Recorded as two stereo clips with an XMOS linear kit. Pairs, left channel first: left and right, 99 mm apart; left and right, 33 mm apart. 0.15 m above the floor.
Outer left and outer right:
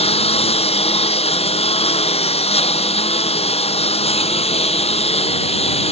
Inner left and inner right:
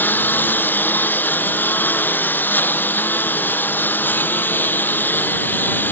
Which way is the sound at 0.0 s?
80° left.